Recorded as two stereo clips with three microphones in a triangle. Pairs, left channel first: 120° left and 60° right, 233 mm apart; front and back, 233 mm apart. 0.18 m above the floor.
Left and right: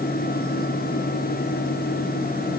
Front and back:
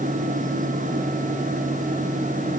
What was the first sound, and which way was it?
Only background noise.